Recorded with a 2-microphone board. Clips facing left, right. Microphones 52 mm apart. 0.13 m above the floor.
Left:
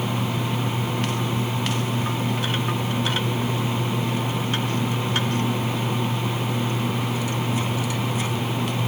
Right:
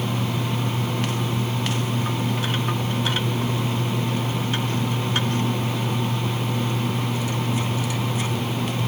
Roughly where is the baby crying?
No baby crying in this recording.